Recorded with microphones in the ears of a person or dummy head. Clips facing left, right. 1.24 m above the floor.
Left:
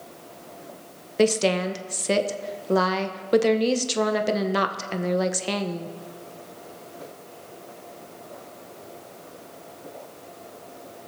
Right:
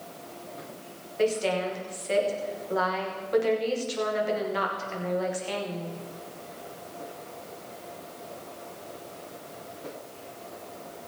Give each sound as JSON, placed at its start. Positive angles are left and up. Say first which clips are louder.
{"t": 1.2, "sound": "a woman speaking", "louder": "left 5 dB", "side_deg": 65, "distance_m": 1.2}